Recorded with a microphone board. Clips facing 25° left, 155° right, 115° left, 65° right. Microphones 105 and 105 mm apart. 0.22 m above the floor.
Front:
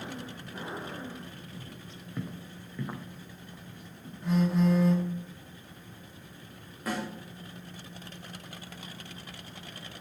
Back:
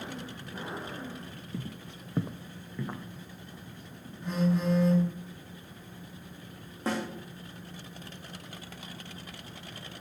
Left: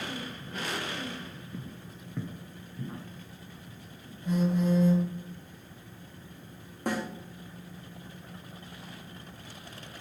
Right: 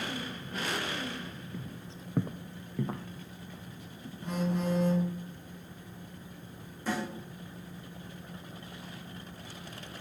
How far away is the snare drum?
About 2.5 m.